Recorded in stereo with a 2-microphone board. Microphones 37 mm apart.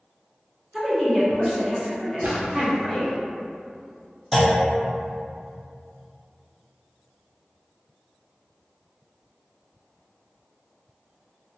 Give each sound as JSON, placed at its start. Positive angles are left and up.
{"t": 0.7, "sound": "a woman speaking", "side_deg": 0, "distance_m": 1.1}
{"t": 2.2, "sound": "a splash", "side_deg": -65, "distance_m": 1.2}
{"t": 4.3, "sound": "a clunk", "side_deg": 0, "distance_m": 0.6}